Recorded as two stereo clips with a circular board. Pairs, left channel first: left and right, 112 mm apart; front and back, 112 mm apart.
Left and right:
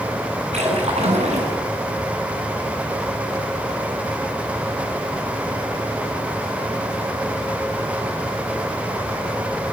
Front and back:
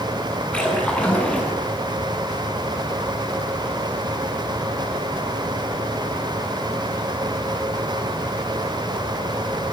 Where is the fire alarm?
I don't hear a fire alarm.